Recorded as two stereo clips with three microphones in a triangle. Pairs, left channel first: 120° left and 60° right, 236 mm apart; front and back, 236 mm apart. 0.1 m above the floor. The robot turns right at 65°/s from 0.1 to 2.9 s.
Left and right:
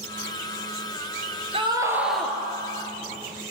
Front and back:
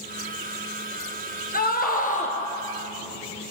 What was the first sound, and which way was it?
A scream, 10° right.